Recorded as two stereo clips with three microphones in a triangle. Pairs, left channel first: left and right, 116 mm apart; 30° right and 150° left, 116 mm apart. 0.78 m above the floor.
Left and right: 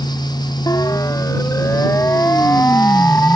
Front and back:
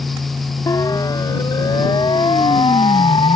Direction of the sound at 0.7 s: 30° left.